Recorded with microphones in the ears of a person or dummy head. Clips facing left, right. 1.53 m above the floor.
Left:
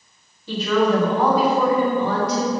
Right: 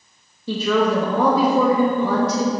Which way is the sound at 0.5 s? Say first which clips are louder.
Even; 80° right.